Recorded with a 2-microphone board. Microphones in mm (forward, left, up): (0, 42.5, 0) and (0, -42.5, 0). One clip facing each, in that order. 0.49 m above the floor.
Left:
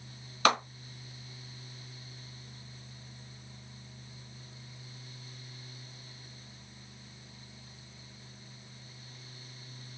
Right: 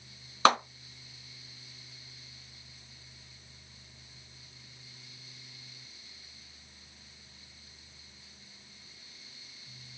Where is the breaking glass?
No breaking glass in this recording.